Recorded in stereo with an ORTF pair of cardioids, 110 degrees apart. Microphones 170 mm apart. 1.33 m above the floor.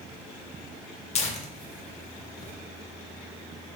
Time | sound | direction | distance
1.1 | tearing paper | 40° left | 1.0 m